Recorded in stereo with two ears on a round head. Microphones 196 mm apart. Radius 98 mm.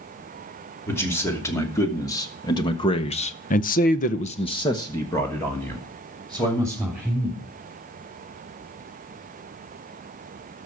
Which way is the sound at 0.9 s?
10° left (ahead or behind).